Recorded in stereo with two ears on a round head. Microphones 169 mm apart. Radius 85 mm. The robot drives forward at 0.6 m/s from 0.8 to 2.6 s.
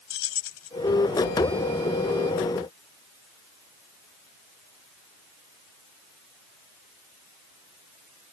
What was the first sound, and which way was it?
Keys jangling, 80° left.